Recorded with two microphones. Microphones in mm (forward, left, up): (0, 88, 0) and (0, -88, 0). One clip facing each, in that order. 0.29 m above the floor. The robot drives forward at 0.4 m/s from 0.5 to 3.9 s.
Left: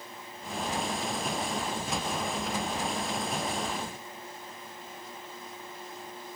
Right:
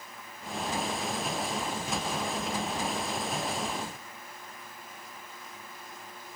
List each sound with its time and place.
Only background noise.